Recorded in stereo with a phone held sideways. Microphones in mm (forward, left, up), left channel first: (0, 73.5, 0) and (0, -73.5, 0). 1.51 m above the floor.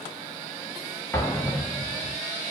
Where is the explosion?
15° left (ahead or behind), 1.0 m.